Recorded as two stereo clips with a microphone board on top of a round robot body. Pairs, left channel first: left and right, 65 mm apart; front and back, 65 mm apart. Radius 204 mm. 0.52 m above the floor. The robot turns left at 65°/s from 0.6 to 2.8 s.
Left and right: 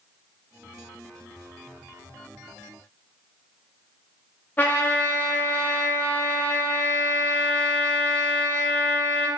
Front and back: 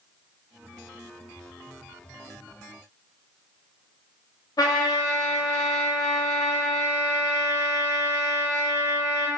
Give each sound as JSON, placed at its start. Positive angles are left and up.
{"t": 4.6, "sound": "a trumpet", "azimuth_deg": 25, "distance_m": 0.6}